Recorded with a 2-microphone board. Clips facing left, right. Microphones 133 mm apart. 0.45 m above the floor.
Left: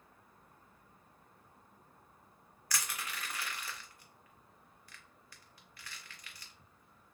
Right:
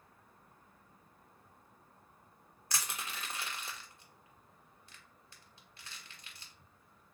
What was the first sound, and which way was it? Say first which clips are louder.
Crushing: even; 25° right (ahead or behind).